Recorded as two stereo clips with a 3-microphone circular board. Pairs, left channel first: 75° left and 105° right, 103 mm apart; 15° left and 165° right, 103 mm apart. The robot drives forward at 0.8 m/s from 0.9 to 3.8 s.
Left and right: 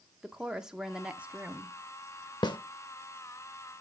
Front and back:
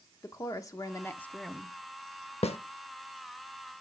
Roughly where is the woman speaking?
Ahead right.